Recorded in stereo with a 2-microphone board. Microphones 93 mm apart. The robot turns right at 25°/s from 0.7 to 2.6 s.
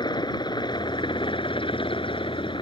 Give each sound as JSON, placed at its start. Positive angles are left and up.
{"t": 0.0, "sound": "a helicopter", "azimuth_deg": 60}